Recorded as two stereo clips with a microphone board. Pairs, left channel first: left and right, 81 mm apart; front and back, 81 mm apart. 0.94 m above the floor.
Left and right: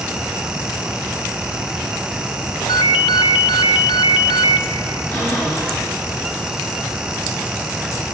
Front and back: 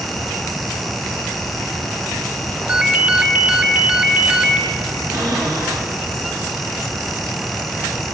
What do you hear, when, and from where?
2.7 s a ringtone: 105° left, 1.1 m
5.1 s a cupboard door: 155° left, 7 m